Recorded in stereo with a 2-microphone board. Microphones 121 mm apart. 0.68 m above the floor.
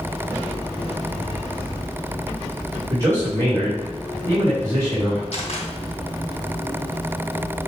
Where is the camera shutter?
50° left (ahead or behind), 2.5 m.